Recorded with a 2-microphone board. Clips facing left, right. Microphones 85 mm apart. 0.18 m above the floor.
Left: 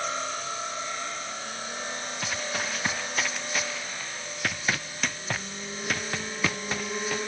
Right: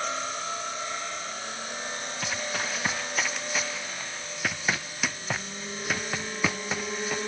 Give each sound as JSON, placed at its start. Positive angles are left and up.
{"t": 2.2, "sound": "running footsteps", "side_deg": 0}